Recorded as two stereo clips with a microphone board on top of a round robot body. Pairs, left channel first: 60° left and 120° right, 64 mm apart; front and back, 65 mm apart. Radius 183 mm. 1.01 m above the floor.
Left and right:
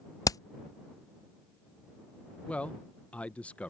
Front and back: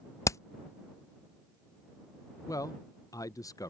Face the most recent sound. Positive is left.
turn(degrees=-5)